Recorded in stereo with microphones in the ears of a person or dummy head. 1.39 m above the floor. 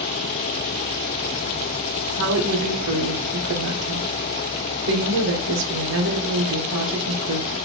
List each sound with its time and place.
2.2 s a woman speaking: 60° right (ahead or behind), 1.2 m